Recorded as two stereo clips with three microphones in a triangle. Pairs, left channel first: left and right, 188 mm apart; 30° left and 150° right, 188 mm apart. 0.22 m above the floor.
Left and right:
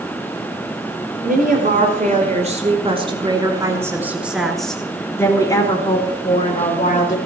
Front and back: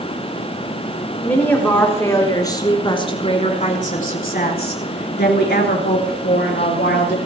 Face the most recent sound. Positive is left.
turn(degrees=45)